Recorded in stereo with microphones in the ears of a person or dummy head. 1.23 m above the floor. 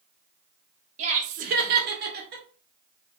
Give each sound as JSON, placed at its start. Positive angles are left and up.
{"t": 1.0, "sound": "laughter", "side_deg": -35, "distance_m": 1.0}